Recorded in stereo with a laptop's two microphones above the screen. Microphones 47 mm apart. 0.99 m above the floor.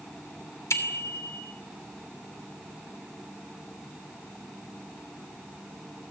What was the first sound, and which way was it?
A bicycle bell, 85° left.